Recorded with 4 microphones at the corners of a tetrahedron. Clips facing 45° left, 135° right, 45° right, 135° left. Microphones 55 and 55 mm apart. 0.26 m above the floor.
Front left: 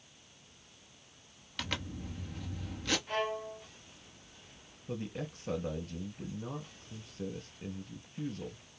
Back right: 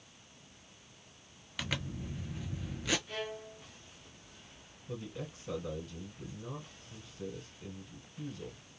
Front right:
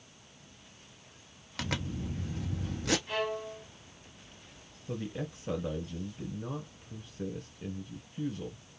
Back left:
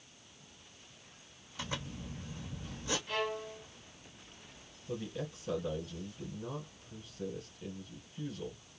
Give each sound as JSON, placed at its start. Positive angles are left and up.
{"t": 1.6, "sound": "a zipper", "azimuth_deg": -50, "distance_m": 0.9}
{"t": 3.1, "sound": "a violin", "azimuth_deg": 20, "distance_m": 1.2}
{"t": 4.9, "sound": "a man speaking", "azimuth_deg": 10, "distance_m": 2.5}